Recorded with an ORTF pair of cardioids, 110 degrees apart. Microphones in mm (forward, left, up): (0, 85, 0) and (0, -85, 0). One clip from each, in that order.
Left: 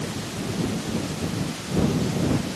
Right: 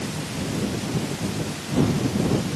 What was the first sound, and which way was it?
Only background noise.